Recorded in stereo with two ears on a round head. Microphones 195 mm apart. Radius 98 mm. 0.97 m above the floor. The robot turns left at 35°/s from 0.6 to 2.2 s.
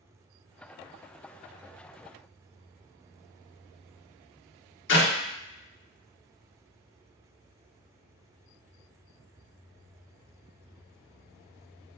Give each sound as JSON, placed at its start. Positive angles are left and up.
{"t": 4.9, "sound": "a clap", "side_deg": 60, "distance_m": 1.5}